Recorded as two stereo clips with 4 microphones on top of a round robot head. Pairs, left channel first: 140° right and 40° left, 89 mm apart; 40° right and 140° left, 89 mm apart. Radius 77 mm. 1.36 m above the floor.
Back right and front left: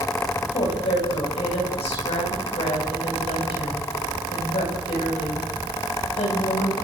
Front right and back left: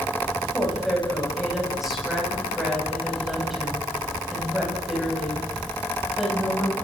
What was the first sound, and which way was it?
A woman speaking, 135° right.